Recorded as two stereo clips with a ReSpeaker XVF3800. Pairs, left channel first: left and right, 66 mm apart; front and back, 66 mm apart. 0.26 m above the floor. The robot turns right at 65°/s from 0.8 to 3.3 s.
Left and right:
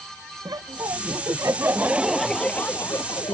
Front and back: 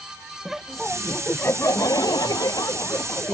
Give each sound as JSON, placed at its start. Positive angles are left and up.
{"t": 0.5, "sound": "laughter", "azimuth_deg": -95}